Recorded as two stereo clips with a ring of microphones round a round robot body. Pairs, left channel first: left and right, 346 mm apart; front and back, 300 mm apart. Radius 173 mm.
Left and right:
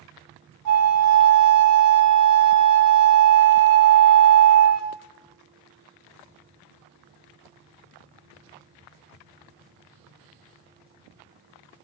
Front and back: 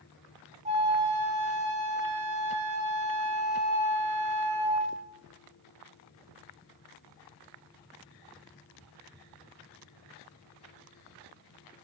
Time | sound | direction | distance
0.7 | a flute | 115° right | 1.4 m